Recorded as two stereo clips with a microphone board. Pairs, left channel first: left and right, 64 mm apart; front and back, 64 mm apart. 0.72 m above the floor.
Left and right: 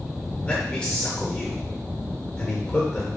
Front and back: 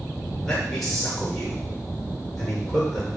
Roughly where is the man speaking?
Left.